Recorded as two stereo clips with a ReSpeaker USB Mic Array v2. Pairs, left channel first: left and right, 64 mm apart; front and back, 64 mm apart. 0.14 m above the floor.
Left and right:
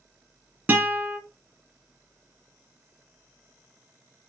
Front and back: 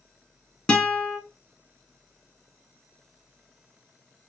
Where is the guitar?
55° right, 0.8 m.